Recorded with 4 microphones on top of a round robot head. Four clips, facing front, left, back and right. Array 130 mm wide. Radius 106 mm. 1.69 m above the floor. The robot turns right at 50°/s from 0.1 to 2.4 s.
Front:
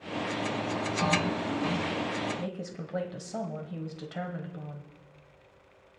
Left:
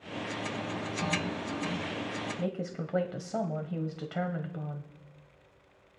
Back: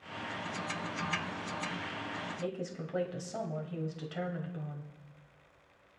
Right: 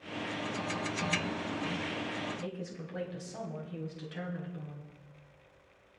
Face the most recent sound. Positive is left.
turn(degrees=75)